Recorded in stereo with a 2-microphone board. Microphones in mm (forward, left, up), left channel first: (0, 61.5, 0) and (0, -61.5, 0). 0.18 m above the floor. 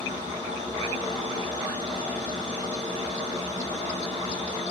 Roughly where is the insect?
Right.